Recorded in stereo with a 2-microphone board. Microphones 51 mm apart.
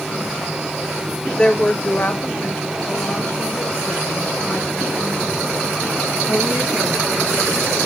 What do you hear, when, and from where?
1.4 s a woman speaking: 15° left (ahead or behind), 0.9 m; by 7.9 s 40° left (ahead or behind), 8 m